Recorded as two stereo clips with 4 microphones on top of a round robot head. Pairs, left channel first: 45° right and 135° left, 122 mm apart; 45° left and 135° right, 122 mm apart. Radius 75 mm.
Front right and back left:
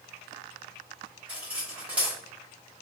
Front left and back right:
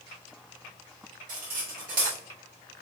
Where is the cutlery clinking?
145° right, 0.9 m.